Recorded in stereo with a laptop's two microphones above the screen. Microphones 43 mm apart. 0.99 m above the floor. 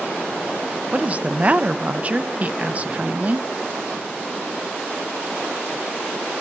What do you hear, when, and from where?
0.9 s a woman speaking: 30° right (ahead or behind), 0.5 m